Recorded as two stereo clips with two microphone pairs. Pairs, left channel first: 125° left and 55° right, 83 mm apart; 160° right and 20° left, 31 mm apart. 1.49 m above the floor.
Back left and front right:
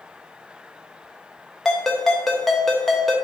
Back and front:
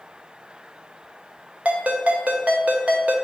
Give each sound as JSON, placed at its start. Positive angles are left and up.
{"t": 1.6, "sound": "a ringtone", "azimuth_deg": 40, "distance_m": 0.6}